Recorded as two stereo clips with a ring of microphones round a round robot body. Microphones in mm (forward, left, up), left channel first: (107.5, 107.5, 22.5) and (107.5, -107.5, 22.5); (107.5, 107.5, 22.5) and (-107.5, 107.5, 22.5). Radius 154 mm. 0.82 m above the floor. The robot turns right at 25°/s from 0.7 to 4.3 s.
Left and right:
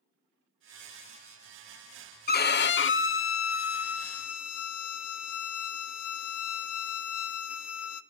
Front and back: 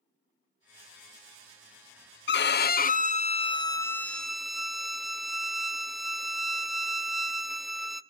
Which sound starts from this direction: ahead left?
A violin, at 2.3 s.